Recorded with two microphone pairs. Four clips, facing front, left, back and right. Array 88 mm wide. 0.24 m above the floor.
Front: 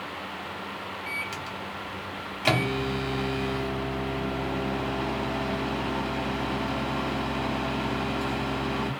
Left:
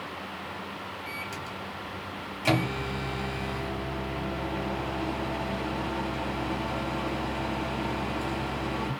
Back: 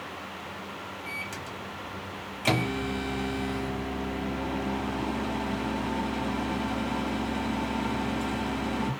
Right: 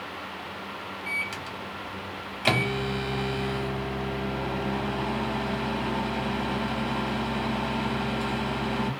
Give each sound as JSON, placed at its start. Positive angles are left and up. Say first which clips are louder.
{"t": 1.1, "sound": "a microwave", "louder": "right 2 dB, front 3 dB", "azimuth_deg": -55, "distance_m": 1.0}